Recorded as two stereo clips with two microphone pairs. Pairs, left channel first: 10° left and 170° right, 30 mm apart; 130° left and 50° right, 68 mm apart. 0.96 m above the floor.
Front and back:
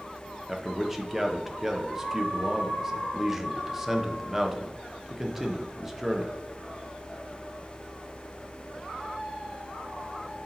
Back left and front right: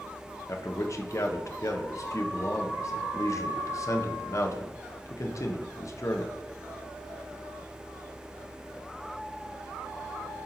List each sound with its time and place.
0.5 s a man speaking: 120° left, 0.7 m